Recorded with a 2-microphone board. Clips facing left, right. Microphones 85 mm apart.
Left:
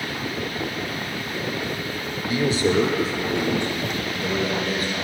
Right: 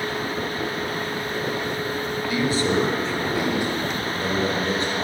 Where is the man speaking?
25° left (ahead or behind), 1.9 m; by 5.0 s 30° right (ahead or behind), 3.5 m.